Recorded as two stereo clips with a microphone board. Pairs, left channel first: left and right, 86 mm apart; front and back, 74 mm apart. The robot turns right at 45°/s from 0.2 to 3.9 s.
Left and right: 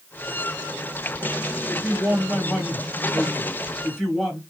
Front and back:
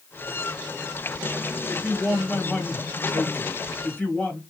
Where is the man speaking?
105° right, 1.6 m; by 4.4 s 10° right, 1.6 m.